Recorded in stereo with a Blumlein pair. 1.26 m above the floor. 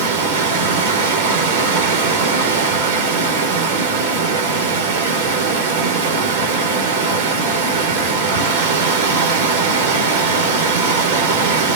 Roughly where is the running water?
Ahead right.